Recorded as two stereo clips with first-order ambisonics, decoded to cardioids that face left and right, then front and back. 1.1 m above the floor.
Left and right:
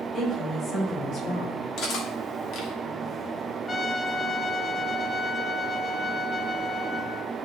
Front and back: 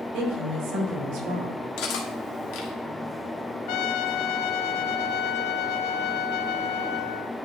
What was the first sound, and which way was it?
A woman speaking, 160° left.